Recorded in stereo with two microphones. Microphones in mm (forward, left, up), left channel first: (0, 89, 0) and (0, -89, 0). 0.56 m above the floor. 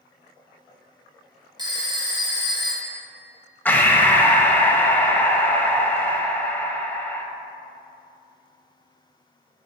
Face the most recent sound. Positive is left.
turn(degrees=10)  # may be behind; listen again after turning